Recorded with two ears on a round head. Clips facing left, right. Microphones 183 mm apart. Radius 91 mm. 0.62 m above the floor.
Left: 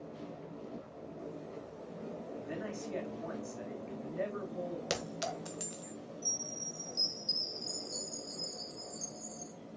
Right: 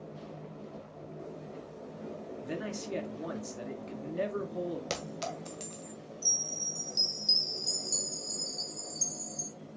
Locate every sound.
2.4 s a man speaking: 50° right (ahead or behind), 1.7 m
4.9 s a clink: 10° left (ahead or behind), 1.8 m
6.2 s a chime: 65° right (ahead or behind), 1.9 m